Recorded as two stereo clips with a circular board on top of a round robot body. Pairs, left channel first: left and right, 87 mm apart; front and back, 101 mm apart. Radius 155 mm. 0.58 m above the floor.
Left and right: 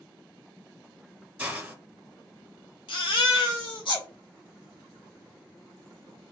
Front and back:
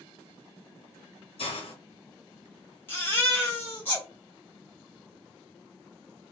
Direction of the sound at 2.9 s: 70° left.